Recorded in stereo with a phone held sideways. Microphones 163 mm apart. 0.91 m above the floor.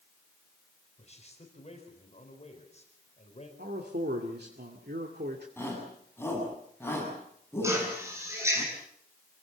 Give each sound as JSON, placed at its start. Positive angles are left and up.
{"t": 1.0, "sound": "a man speaking", "side_deg": 40, "distance_m": 4.0}
{"t": 3.6, "sound": "a man speaking", "side_deg": -80, "distance_m": 2.5}
{"t": 5.6, "sound": "a shout", "side_deg": 15, "distance_m": 7.0}
{"t": 7.6, "sound": "a drill", "side_deg": -15, "distance_m": 7.0}